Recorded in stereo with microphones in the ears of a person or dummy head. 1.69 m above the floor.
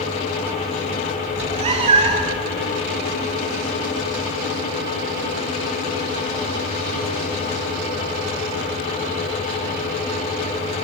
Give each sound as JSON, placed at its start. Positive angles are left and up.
{"t": 1.3, "sound": "a cat meowing", "side_deg": -30, "distance_m": 6.5}